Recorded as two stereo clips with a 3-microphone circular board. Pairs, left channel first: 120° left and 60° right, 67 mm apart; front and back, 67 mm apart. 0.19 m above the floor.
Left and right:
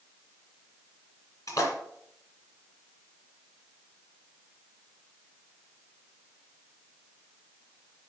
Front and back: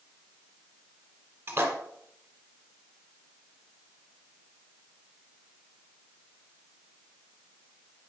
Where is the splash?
140° left, 2.5 m.